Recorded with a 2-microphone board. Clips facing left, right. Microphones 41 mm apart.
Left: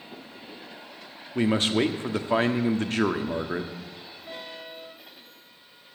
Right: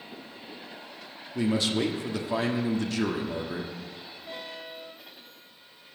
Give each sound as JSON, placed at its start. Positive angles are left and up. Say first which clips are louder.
{"t": 1.4, "sound": "a man speaking", "louder": "left 3 dB", "side_deg": 45, "distance_m": 1.0}